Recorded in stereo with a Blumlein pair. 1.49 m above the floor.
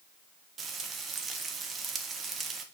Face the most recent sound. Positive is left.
turn(degrees=-20)